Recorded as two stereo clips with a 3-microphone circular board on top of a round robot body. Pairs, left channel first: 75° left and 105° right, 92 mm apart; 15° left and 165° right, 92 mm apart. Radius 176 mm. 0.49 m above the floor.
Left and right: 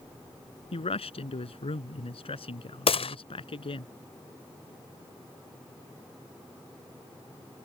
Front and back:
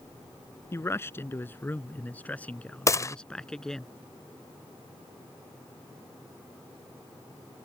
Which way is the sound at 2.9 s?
70° left.